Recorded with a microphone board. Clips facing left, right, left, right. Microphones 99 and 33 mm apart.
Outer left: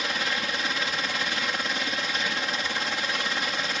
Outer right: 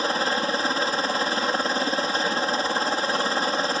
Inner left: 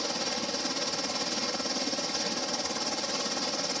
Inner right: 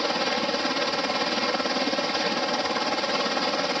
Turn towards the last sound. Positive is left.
turn(degrees=-35)  # may be behind; listen again after turning